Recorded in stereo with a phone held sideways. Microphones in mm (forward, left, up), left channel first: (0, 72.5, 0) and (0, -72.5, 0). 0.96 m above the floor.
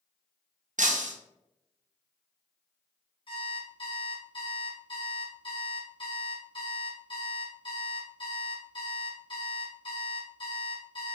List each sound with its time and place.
0.8 s breaking glass: 65° right (ahead or behind), 0.5 m
3.3 s an alarm clock: 40° left (ahead or behind), 1.2 m